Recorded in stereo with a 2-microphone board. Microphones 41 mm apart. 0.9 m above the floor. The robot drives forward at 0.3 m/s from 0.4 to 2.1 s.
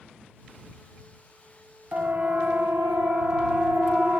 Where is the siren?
50° right (ahead or behind), 4 m; by 4.2 s 55° right (ahead or behind), 5.5 m.